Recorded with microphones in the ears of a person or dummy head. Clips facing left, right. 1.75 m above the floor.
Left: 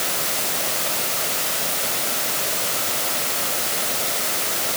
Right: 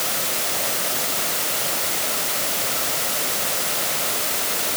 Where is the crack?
I don't hear a crack.